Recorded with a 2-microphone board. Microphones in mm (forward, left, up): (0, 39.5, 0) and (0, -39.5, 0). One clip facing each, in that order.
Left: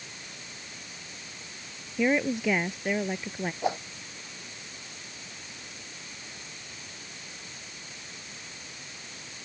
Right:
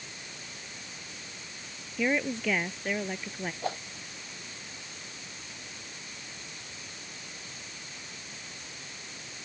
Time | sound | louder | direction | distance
2.0 | a woman speaking | left 3 dB | 10° left (ahead or behind) | ?
3.6 | a whoosh | left 5 dB | 15° left (ahead or behind) | ?